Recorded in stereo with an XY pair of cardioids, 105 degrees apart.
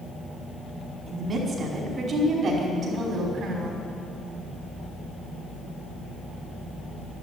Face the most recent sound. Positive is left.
turn(degrees=-55)